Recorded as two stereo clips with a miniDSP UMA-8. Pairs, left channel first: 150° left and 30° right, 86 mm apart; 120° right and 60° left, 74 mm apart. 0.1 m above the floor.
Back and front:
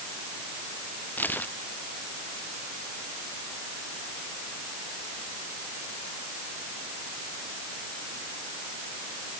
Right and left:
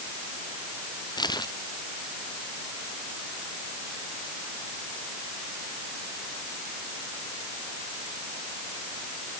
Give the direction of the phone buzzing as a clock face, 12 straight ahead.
I don't hear a phone buzzing.